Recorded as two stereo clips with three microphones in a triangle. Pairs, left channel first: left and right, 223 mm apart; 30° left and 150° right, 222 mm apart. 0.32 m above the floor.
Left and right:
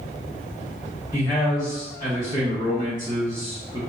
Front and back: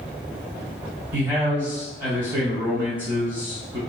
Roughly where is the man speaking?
Behind left.